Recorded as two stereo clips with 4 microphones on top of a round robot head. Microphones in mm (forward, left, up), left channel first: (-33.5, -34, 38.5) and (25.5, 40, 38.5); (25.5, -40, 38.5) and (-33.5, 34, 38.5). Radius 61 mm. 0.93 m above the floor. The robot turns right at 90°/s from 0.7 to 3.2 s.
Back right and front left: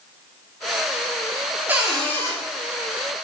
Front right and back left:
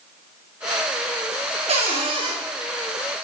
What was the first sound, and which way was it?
A cupboard door, 125° left.